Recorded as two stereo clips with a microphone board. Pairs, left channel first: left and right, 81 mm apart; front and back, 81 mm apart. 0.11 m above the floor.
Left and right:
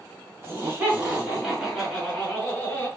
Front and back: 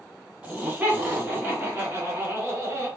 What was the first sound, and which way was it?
Laughter, 125° right.